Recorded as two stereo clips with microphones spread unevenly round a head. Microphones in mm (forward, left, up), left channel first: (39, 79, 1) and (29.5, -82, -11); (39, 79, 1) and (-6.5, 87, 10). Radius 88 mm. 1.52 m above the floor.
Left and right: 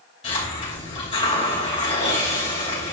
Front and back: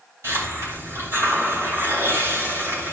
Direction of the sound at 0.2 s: 150° left.